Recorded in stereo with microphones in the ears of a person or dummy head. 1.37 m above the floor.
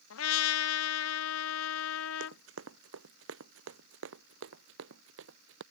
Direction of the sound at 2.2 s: 75° right (ahead or behind).